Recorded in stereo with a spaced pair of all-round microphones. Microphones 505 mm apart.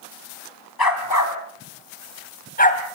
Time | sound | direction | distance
0.8 | a dog barking | 45° left (ahead or behind) | 3.5 m